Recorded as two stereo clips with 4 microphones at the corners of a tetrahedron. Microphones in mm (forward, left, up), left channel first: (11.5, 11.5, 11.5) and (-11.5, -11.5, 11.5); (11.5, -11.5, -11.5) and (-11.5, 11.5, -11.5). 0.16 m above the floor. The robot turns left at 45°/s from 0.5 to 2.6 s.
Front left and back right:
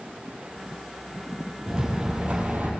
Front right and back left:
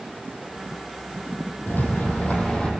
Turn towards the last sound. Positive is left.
turn(degrees=-100)